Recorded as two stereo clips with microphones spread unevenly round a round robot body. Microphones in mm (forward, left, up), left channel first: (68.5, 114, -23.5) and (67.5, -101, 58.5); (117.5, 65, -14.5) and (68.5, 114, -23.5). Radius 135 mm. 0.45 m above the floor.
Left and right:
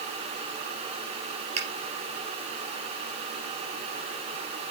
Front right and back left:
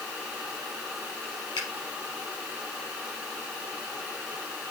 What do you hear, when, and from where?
1.6 s a finger snap: 80° right, 4 m